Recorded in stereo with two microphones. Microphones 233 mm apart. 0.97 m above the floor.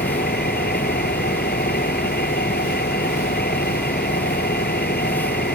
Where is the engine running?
45° left (ahead or behind).